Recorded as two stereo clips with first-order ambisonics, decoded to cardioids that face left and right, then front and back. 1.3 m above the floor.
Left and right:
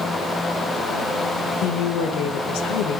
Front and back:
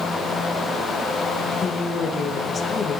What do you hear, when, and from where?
1.6 s a woman speaking: 70° left, 1.7 m